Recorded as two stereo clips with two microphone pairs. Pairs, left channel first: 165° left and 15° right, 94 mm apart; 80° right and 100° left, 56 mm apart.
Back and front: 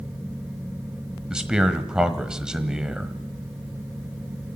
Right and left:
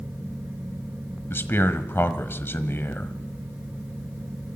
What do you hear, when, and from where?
1.3 s a man speaking: 95° right, 1.3 m